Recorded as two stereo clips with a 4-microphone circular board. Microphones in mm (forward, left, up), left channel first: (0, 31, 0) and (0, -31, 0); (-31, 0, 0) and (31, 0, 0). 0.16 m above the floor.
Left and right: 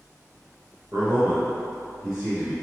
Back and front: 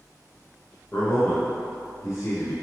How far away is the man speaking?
About 1.9 m.